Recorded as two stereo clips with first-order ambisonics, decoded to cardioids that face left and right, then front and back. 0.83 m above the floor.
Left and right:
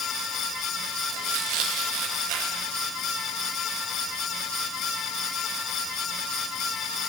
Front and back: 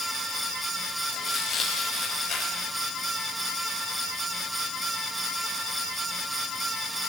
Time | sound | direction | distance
1.1 | tearing paper | 65° right | 4.5 m